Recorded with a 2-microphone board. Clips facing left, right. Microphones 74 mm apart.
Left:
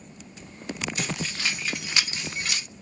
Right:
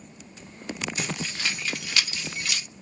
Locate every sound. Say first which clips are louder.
1.0 s keys jangling: left 1 dB; 5° right (ahead or behind), 1.6 m; by 2.6 s 30° left (ahead or behind), 0.9 m